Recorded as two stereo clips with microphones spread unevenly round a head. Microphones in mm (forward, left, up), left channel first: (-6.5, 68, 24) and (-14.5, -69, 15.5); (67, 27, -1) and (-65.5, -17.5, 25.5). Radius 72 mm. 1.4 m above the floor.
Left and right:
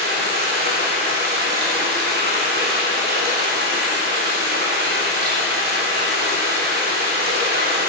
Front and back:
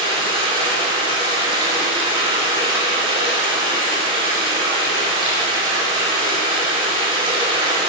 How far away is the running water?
About 3.5 m.